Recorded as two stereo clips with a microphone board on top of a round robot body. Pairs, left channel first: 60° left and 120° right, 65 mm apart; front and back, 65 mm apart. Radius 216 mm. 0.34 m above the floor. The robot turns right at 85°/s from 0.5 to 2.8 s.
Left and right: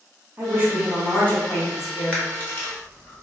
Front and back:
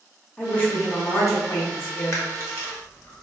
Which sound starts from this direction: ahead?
A camera shutter, at 2.1 s.